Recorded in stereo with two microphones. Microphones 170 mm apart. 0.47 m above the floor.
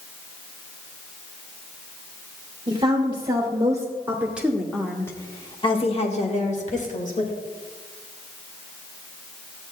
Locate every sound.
2.7 s a woman speaking: 30° right (ahead or behind), 1.8 m; by 7.3 s 50° left (ahead or behind), 1.7 m